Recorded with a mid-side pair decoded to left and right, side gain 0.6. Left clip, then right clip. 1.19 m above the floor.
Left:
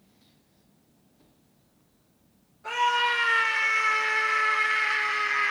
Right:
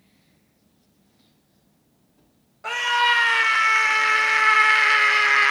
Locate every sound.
2.6 s a scream: 60° right, 2.5 m; by 5.5 s 70° right, 1.2 m